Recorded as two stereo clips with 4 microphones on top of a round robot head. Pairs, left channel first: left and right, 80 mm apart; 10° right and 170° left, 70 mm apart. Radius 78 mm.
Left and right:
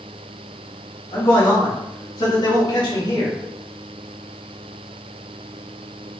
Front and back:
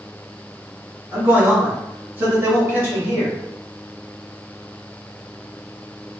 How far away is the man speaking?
About 1.4 m.